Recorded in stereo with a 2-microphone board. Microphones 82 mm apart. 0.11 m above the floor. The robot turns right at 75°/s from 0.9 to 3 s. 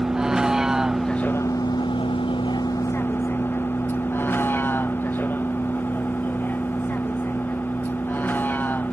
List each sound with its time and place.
0.0 s a vehicle: 5° right (ahead or behind); by 8.9 s 20° left (ahead or behind)